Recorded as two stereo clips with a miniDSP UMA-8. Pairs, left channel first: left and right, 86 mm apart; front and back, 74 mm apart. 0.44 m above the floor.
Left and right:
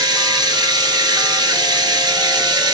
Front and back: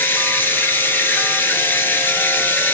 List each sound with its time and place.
0.0 s running water: 60° right, 0.9 m